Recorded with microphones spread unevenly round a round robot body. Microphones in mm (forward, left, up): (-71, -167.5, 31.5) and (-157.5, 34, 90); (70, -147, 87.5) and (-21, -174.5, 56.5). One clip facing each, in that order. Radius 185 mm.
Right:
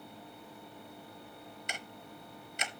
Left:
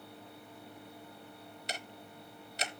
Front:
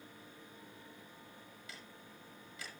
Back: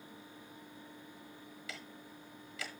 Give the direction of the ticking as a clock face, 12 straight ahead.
6 o'clock.